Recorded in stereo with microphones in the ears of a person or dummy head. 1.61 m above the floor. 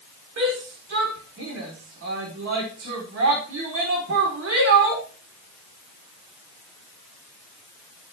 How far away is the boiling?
I don't hear boiling.